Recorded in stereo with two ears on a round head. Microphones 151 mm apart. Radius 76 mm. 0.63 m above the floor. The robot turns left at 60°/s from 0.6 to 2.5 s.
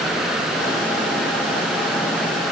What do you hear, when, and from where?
Only background noise.